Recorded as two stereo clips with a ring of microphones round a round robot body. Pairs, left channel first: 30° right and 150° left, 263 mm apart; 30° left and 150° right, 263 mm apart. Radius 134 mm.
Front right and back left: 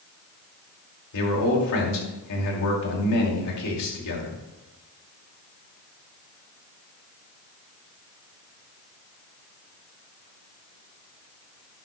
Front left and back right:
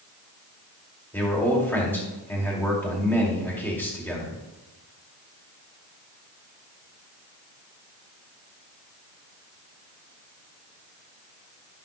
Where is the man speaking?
50° right, 2 m.